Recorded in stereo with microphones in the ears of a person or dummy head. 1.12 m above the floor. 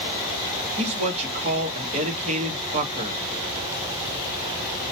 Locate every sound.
0.8 s a man speaking: 40° right (ahead or behind), 0.8 m